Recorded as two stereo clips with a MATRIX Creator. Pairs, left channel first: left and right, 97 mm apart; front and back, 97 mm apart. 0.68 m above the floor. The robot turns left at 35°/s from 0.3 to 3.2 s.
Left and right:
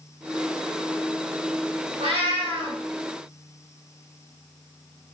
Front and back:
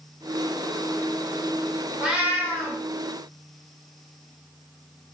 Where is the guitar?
I don't hear a guitar.